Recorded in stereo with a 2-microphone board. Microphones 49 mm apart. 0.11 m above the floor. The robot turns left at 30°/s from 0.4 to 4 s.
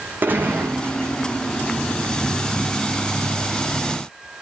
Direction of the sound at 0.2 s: 35° right (ahead or behind).